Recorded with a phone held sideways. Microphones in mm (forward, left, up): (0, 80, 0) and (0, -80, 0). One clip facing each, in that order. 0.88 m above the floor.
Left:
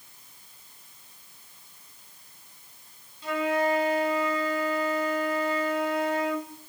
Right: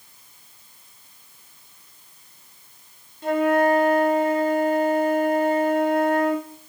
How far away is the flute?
About 1.1 m.